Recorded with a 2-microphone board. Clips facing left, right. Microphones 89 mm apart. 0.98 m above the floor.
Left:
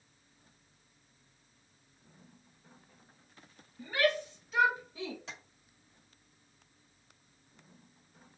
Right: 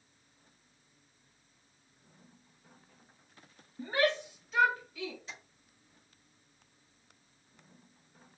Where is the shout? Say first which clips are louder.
Even; 40° right (ahead or behind), 1.5 m; by 5.2 s 40° left (ahead or behind), 1.4 m.